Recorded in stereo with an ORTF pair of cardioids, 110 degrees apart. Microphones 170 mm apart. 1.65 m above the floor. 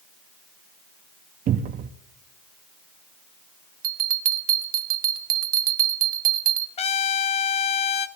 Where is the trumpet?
35° left, 0.8 m.